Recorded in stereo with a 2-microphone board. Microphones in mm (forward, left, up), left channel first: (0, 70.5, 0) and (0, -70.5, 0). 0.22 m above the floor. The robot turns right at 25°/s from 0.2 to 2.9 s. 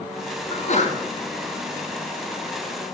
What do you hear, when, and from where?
0.5 s a sneeze: 50° left (ahead or behind), 3 m; by 0.9 s 55° left (ahead or behind), 3 m